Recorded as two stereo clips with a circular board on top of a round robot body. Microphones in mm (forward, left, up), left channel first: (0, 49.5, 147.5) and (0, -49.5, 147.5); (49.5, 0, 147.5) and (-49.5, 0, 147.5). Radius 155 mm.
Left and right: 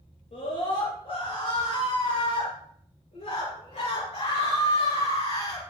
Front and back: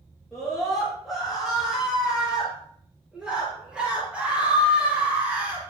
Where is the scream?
90° left, 9.5 m; by 5.6 s 110° left, 6 m.